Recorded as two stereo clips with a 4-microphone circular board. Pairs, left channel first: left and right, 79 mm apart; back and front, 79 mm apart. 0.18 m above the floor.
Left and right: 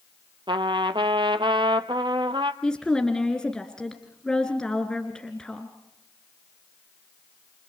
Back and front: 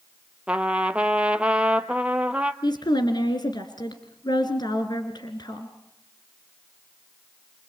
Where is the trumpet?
75° right, 0.8 m.